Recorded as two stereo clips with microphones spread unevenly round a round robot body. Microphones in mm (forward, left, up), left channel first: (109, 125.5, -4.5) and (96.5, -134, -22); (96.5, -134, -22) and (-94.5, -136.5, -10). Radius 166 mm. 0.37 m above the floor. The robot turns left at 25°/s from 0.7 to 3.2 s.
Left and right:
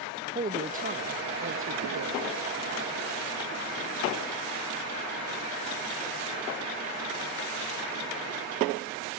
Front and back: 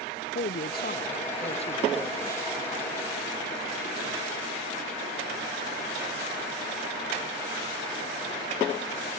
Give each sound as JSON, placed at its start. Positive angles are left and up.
{"t": 0.3, "sound": "a woman speaking", "azimuth_deg": -35}